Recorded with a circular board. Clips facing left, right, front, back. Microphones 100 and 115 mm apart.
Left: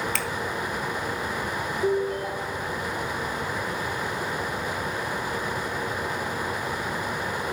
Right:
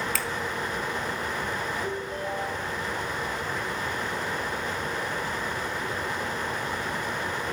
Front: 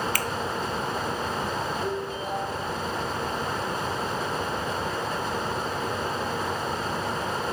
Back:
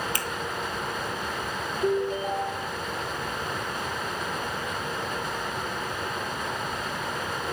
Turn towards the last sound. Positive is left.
turn(degrees=125)